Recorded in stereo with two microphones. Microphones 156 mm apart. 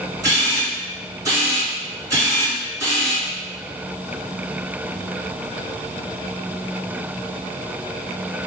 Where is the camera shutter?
20° right (ahead or behind), 1.9 m.